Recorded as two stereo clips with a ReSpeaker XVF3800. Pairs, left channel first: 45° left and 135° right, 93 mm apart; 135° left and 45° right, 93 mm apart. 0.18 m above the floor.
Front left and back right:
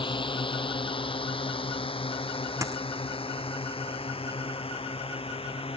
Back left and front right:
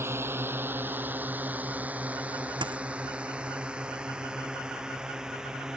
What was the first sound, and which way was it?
A drone, 20° left.